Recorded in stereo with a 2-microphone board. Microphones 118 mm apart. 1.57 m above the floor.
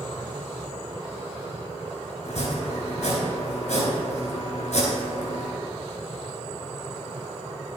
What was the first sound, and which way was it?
Chopping, 75° left (ahead or behind).